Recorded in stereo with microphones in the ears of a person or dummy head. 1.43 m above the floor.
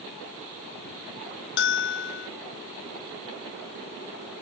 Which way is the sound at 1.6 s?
70° left (ahead or behind).